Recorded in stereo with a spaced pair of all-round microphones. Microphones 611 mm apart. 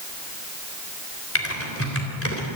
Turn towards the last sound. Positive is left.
turn(degrees=20)  # may be behind; listen again after turning